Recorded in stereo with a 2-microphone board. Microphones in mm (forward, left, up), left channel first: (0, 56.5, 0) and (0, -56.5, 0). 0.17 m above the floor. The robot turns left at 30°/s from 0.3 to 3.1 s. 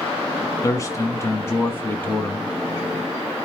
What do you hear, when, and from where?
0.6 s a man speaking: 80° left, 1.2 m; by 2.5 s 20° left, 1.2 m